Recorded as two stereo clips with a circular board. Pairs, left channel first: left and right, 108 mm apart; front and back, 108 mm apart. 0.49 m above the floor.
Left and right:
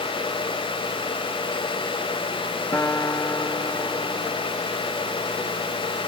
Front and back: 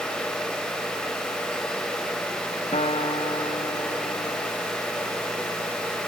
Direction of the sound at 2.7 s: 25° left.